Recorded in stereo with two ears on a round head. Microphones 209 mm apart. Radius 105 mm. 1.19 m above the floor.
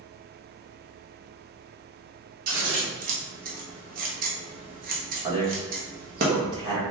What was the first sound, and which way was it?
Scissors, 35° right (ahead or behind).